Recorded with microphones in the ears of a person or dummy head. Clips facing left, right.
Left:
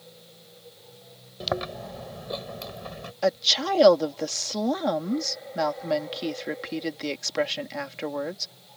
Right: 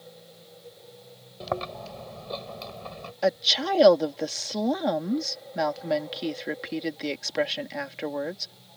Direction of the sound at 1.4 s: 15° left (ahead or behind).